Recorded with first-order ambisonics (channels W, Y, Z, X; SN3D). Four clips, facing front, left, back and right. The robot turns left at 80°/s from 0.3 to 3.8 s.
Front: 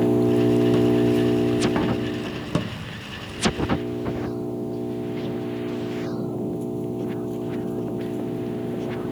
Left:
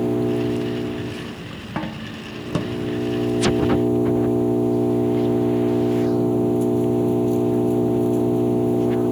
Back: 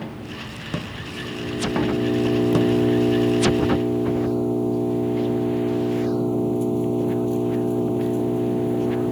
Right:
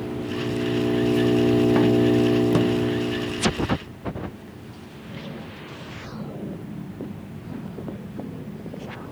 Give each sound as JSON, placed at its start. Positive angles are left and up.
{"t": 0.0, "sound": "an engine running", "azimuth_deg": 30}